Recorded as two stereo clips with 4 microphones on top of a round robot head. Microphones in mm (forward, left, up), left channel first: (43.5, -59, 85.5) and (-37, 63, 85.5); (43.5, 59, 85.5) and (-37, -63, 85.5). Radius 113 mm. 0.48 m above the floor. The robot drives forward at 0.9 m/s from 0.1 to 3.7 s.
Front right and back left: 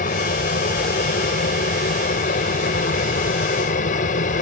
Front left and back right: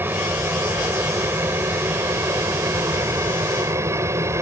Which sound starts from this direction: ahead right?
An aircraft, at 0.0 s.